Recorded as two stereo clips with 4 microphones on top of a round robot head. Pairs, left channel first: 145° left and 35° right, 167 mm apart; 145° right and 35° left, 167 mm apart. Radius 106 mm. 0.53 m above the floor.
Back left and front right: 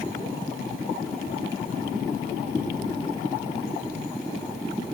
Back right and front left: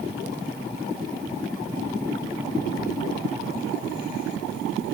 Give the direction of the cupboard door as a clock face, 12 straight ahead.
I don't hear a cupboard door.